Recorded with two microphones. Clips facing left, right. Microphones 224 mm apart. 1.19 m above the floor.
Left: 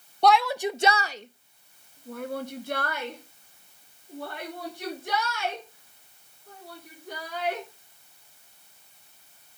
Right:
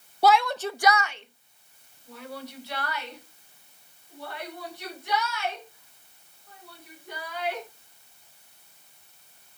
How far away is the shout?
About 0.6 m.